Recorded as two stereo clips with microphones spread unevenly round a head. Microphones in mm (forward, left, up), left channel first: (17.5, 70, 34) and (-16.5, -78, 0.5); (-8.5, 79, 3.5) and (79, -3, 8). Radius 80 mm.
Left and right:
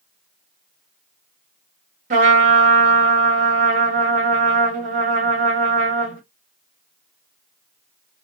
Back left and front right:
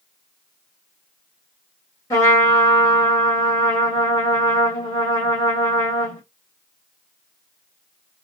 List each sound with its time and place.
2.1 s a trumpet: 150° right, 1.2 m